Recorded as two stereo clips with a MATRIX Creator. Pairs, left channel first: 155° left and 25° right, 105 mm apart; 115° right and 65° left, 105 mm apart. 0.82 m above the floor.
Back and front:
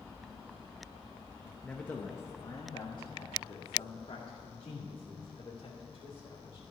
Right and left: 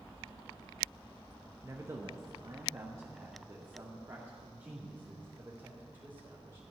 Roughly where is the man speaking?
Left.